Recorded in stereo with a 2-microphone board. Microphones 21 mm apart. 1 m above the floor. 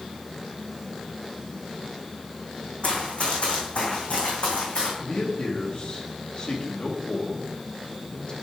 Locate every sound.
2.8 s running footsteps: 55° left (ahead or behind), 3 m; by 4.9 s 75° left (ahead or behind), 3.5 m
5.0 s a man speaking: 40° left (ahead or behind), 2.0 m